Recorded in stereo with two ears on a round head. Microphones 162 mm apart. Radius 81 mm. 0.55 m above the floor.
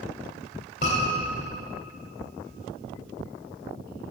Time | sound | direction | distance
0.8 | a scream | 50° left (ahead or behind) | 3 m